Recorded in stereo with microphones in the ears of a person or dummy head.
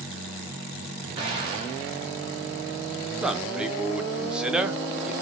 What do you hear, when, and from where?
1.2 s an explosion: 25° right (ahead or behind), 1.0 m
3.2 s a man speaking: 5° right (ahead or behind), 0.6 m